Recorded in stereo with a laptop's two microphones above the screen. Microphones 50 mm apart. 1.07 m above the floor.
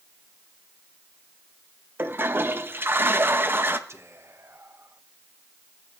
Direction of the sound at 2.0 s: 45° right (ahead or behind).